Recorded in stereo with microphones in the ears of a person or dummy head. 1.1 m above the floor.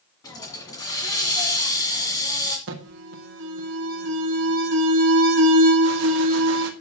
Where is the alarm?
65° right (ahead or behind), 1.5 m.